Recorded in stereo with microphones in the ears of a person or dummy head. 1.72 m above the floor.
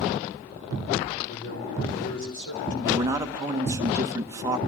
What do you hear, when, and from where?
1.3 s a man speaking: 65° left (ahead or behind), 7 m
2.9 s a man speaking: 15° right (ahead or behind), 1.8 m